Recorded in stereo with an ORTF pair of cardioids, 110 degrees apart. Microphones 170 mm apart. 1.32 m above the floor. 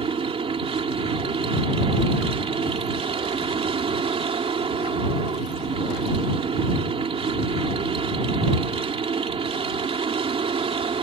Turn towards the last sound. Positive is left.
turn(degrees=-35)